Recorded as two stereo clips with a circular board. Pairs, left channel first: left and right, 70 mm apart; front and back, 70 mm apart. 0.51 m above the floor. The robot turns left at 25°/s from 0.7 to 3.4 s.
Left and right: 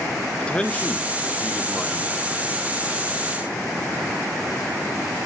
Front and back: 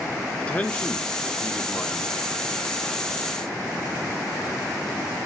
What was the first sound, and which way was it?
A man speaking, 40° left.